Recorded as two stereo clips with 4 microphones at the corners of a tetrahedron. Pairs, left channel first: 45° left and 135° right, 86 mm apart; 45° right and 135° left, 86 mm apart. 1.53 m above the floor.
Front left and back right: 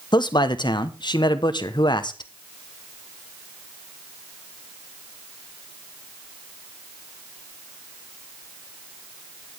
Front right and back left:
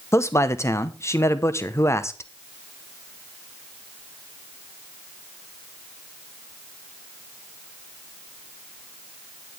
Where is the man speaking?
15° left, 1.0 m.